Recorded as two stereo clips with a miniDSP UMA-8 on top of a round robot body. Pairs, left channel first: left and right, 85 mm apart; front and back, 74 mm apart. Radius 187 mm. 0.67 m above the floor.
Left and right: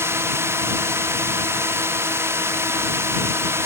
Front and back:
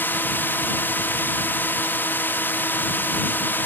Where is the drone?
50° right.